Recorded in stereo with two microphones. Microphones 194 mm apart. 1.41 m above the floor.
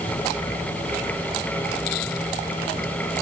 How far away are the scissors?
No scissors in this recording.